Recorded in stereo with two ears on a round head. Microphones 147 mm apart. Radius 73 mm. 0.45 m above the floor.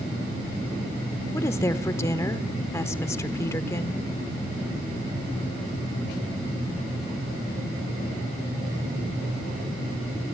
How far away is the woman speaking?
About 1.0 m.